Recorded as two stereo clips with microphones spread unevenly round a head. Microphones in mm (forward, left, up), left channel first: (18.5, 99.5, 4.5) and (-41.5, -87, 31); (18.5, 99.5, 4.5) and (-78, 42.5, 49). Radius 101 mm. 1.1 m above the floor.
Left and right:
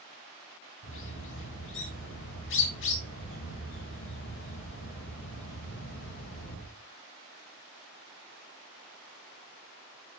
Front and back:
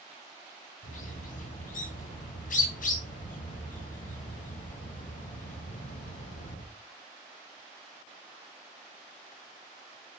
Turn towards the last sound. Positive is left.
turn(degrees=35)